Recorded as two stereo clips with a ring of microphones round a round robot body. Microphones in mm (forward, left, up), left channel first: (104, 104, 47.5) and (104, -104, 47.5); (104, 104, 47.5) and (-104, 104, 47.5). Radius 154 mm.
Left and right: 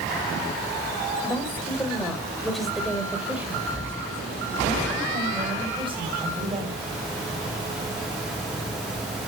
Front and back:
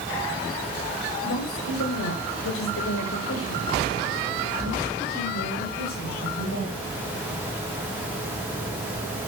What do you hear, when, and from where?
1.2 s a woman speaking: 15° left, 4 m; by 6.9 s 30° right, 5.5 m